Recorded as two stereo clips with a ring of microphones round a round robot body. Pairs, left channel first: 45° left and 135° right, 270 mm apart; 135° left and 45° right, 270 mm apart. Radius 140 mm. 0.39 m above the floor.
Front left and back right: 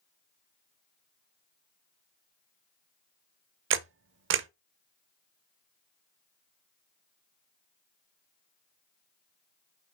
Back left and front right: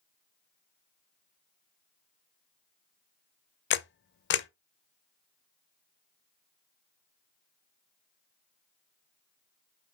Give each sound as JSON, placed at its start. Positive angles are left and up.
{"t": 3.7, "sound": "a camera shutter", "azimuth_deg": 180, "distance_m": 0.5}